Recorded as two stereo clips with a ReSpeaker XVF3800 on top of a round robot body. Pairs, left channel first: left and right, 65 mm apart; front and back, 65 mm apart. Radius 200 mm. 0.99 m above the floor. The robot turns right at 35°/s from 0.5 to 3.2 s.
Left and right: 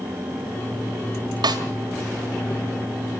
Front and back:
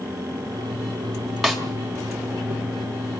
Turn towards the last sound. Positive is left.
turn(degrees=-25)